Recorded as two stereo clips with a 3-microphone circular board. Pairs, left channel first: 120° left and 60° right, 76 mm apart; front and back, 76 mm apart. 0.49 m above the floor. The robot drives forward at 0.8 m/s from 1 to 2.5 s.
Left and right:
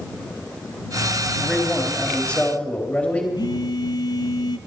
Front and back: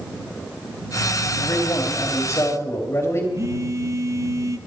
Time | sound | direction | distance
1.4 | a man speaking | 35° left | 3 m
3.4 | a phone buzzing | 135° left | 0.5 m